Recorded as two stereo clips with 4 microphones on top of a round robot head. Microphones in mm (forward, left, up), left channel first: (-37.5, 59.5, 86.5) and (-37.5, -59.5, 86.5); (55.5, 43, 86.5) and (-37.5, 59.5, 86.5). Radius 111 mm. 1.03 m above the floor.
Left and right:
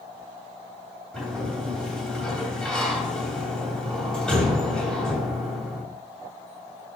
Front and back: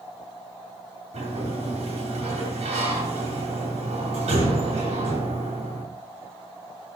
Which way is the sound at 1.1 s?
175° left.